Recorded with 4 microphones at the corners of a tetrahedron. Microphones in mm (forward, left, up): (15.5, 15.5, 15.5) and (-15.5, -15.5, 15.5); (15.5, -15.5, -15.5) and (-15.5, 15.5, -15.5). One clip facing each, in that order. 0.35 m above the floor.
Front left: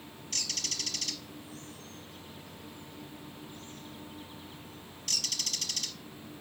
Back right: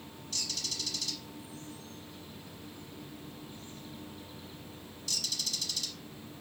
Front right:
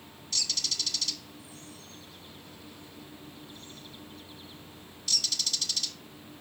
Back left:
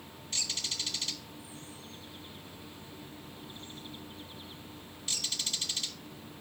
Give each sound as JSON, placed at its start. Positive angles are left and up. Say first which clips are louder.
{"t": 0.3, "sound": "a bird", "louder": "front left 1 dB, front right 3 dB", "azimuth_deg": 70, "distance_m": 0.8}